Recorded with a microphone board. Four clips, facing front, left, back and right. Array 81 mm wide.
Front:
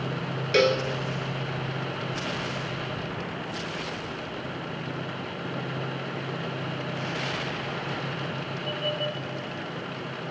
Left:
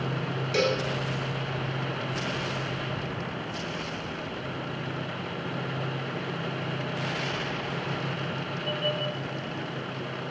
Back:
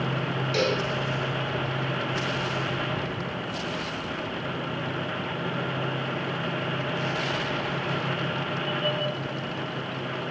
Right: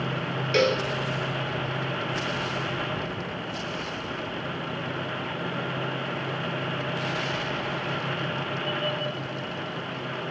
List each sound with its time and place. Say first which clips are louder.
0.5 s a cowbell: right 3 dB, front 5 dB; 35° right, 0.8 m